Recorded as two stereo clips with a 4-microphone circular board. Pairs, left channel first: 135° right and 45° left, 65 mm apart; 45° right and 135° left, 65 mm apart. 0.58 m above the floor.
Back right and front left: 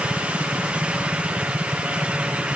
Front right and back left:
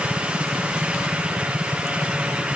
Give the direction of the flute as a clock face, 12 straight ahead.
No flute in this recording.